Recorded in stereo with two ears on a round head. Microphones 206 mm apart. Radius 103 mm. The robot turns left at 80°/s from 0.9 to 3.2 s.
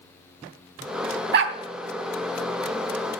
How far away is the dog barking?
About 1.0 m.